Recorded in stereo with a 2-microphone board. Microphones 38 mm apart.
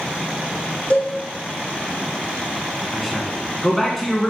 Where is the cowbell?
35° left (ahead or behind), 3.5 m.